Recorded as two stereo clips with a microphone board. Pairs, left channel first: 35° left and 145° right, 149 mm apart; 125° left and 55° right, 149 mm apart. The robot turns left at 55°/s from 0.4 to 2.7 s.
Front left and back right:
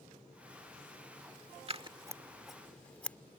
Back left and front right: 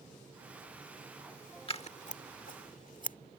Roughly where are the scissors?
Behind.